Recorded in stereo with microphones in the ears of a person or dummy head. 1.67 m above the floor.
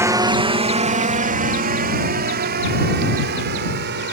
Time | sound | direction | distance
0.0 | a drone | 5° right (ahead or behind) | ?